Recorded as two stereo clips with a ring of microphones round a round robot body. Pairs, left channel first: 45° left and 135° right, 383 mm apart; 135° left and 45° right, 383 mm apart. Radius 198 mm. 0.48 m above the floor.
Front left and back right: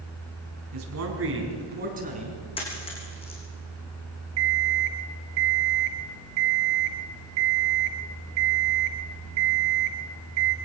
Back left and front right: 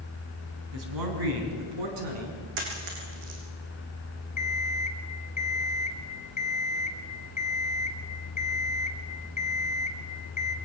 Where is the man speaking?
90° right, 4.5 m; by 2.4 s 60° right, 5.5 m.